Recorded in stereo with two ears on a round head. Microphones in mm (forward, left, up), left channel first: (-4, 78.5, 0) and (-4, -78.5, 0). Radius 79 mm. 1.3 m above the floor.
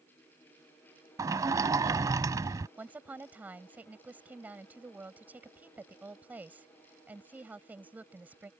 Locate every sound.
1.2 s a sliding door: 20° right (ahead or behind)
2.8 s a woman speaking: 10° right (ahead or behind)